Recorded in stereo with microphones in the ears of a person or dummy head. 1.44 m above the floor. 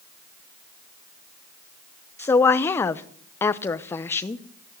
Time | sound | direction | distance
2.2 | a woman speaking | 10° left (ahead or behind) | 0.7 m